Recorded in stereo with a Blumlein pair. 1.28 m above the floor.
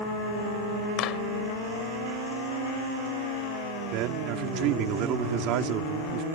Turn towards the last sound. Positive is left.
turn(degrees=-40)